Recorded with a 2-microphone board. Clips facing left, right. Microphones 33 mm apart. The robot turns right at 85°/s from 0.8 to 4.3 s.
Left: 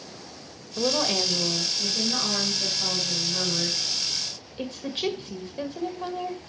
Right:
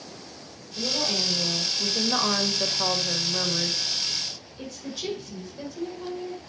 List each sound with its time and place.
0.8 s a woman speaking: 110° left, 1.7 m; by 6.4 s 50° left, 1.7 m